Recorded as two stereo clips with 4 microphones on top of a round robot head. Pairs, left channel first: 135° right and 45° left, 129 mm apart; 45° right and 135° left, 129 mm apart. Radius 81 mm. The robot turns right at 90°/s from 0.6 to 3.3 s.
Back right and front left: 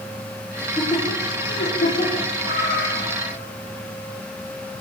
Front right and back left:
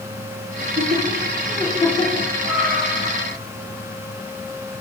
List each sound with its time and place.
0.6 s laughter: 140° left, 6.5 m; by 2.3 s 65° right, 6.5 m
2.4 s a cat meowing: 145° right, 5 m; by 3.4 s 70° right, 5 m